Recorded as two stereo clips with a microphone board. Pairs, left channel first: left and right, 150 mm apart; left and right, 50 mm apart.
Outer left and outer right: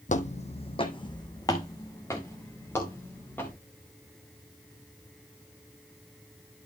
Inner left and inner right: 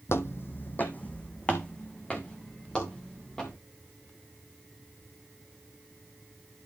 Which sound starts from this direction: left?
Footsteps, at 0.1 s.